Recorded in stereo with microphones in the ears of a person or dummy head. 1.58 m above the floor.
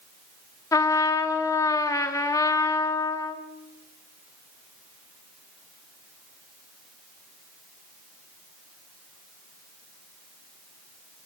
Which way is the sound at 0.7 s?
20° left (ahead or behind).